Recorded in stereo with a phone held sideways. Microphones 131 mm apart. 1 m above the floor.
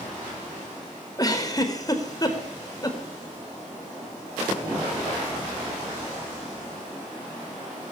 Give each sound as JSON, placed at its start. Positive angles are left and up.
{"t": 1.2, "sound": "a giggle", "side_deg": 25, "distance_m": 4.0}